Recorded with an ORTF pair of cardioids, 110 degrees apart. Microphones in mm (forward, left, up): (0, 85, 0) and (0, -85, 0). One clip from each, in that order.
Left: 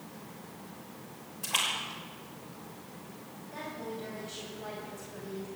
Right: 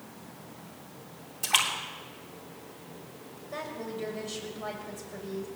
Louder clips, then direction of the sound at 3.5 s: Right 3 dB; 70° right.